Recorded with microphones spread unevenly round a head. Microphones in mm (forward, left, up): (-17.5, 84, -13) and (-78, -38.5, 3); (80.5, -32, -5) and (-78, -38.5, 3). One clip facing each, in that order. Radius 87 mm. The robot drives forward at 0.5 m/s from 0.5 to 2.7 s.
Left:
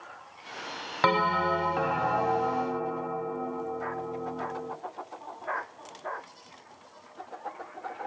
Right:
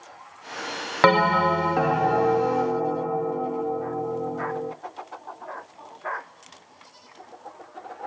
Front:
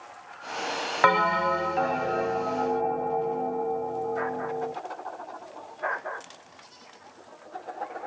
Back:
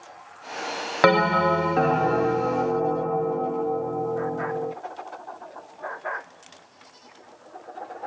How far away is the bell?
About 0.6 m.